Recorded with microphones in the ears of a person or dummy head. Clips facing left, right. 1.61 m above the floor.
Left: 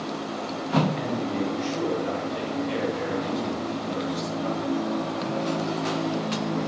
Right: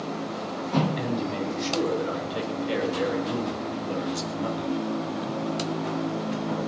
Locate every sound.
1.0 s a man speaking: 50° right (ahead or behind), 9.5 m; by 4.8 s 75° right (ahead or behind), 6.5 m